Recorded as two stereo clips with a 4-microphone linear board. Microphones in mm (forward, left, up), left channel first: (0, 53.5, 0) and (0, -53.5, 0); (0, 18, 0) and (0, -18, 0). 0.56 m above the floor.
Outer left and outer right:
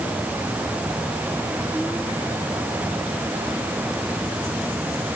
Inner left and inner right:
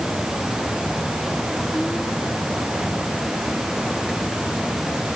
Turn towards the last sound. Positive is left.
No sound to turn to.